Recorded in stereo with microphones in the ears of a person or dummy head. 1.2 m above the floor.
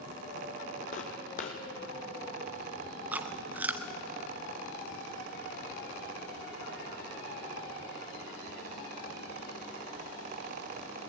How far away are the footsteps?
About 2 m.